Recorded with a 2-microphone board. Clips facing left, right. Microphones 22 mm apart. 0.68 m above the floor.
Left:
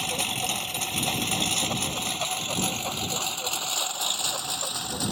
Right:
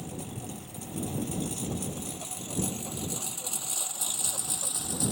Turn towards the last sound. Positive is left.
turn(degrees=30)  # may be behind; listen again after turning